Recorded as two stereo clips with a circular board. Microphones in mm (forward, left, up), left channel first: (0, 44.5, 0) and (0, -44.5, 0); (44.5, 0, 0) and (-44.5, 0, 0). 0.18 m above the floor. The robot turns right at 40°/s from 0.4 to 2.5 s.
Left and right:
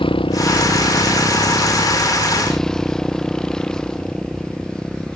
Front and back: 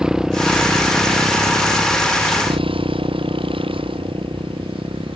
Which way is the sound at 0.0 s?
95° left.